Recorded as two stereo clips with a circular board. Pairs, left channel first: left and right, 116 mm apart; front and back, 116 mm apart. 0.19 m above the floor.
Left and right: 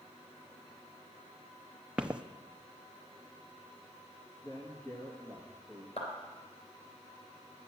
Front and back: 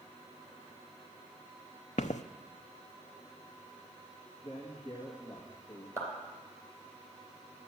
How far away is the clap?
About 3 m.